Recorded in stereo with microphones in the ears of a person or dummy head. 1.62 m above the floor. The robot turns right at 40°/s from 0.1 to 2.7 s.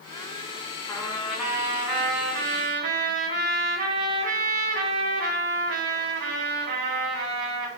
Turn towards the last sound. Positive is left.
turn(degrees=-125)